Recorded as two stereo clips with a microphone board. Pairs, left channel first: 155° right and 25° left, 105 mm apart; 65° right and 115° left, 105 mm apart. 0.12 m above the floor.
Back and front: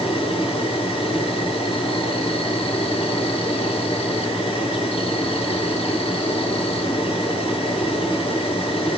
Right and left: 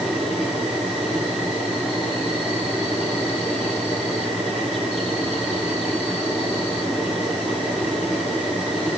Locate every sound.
0.0 s an insect: 155° right, 4.5 m